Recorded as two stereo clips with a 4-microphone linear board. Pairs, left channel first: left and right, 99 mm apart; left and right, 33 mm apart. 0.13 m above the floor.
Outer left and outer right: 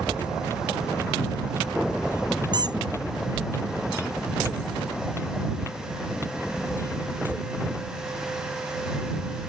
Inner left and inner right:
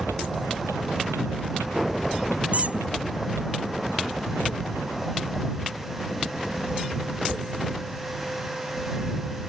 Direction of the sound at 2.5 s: 45° right (ahead or behind).